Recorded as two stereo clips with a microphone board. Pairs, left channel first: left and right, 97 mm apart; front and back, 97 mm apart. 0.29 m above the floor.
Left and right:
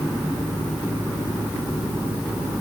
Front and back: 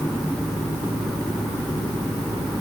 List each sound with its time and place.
Only background noise.